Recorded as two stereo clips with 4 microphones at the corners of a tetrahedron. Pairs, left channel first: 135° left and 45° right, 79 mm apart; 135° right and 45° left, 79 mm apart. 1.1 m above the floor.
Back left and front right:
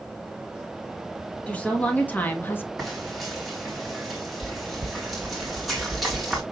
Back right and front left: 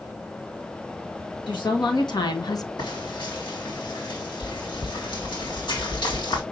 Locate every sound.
1.5 s a woman speaking: 155° right, 1.9 m; by 2.7 s 175° right, 0.6 m
2.8 s frying: 135° right, 2.0 m